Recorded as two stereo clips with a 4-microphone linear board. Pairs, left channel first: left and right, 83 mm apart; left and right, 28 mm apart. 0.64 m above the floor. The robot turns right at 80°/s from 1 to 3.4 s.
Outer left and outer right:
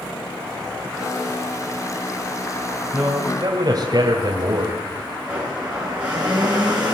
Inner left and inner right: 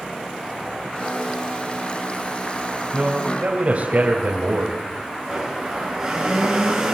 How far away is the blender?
About 7.5 m.